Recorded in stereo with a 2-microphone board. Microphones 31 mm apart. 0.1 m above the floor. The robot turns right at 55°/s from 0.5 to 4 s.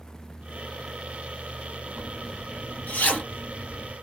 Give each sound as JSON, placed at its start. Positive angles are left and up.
{"t": 2.0, "sound": "a zipper", "side_deg": 30, "distance_m": 2.5}